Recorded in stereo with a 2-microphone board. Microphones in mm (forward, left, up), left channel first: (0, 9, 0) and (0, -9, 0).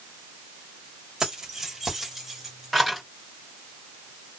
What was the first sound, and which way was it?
Keys jangling, 40° right (ahead or behind).